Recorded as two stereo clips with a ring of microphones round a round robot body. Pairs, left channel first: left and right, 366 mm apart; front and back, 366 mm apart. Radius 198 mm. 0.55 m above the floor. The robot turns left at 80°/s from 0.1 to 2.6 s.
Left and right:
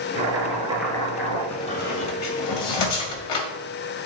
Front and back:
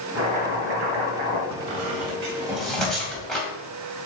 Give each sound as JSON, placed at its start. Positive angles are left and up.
{"t": 0.1, "sound": "chopping", "azimuth_deg": -125, "distance_m": 3.0}
{"t": 1.5, "sound": "a squeak", "azimuth_deg": 175, "distance_m": 2.0}